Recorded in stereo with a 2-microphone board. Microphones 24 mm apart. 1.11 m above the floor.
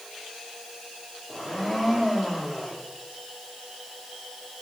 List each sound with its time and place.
1.3 s a blender: 10° right (ahead or behind), 3 m